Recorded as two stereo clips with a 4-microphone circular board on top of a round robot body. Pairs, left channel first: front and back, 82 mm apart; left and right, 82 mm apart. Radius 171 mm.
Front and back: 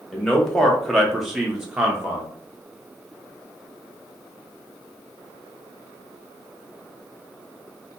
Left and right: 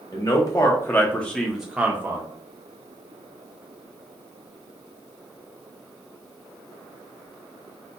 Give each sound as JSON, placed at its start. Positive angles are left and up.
{"t": 0.1, "sound": "a man speaking", "azimuth_deg": 80, "distance_m": 1.0}